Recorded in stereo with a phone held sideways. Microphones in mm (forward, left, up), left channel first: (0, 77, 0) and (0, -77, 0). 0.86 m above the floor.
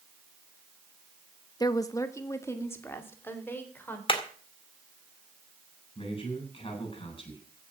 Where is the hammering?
35° left (ahead or behind), 2 m.